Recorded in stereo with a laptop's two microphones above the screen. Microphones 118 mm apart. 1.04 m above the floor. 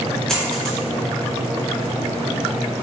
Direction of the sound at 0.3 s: 5° left (ahead or behind).